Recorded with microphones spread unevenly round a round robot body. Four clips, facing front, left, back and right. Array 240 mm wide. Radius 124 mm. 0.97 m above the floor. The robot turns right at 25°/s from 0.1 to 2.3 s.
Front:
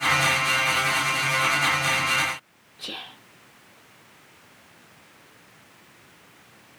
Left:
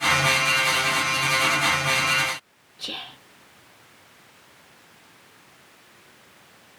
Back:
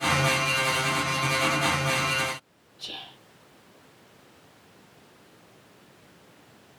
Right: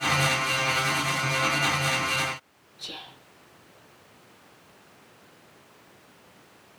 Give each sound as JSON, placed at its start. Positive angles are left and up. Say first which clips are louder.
{"t": 2.8, "sound": "whispering", "louder": "left 5 dB, front 4 dB", "azimuth_deg": 45, "distance_m": 2.5}